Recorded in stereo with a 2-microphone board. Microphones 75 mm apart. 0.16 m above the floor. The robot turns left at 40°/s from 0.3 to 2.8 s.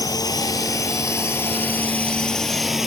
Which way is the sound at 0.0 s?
55° left (ahead or behind).